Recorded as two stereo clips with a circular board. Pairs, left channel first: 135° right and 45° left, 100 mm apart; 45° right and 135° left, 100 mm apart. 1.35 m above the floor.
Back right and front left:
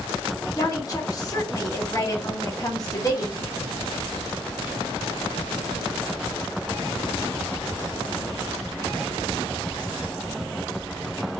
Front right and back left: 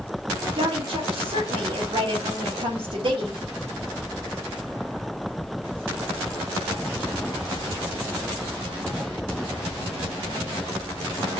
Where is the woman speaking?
170° left, 1.9 m.